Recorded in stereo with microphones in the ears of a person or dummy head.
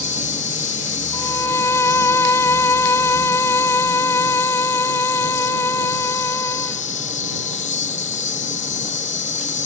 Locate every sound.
0.0 s an insect: 40° left (ahead or behind)
1.1 s a violin: 10° left (ahead or behind)